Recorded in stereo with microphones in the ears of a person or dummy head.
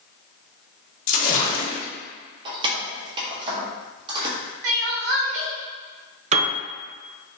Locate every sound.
1.1 s a splash: 45° left (ahead or behind), 1.1 m
2.5 s keys jangling: 25° right (ahead or behind), 1.0 m
4.6 s crying: 60° right (ahead or behind), 1.0 m
6.3 s a piano: 35° right (ahead or behind), 0.6 m